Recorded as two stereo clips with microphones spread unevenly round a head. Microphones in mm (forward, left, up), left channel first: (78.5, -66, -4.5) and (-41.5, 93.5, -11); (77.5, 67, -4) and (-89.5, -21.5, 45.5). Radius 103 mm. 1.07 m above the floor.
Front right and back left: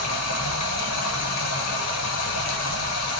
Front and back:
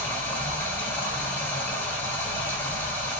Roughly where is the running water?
Ahead right.